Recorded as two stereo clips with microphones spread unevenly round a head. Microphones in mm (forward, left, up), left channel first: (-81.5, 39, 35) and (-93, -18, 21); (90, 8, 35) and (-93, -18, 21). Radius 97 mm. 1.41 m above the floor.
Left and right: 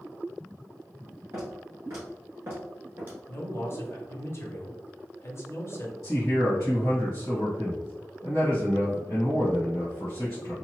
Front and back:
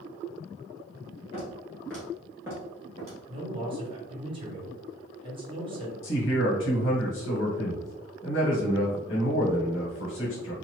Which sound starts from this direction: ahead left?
A man speaking, at 6.0 s.